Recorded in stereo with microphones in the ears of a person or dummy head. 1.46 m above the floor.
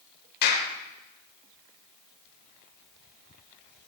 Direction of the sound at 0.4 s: 55° left (ahead or behind).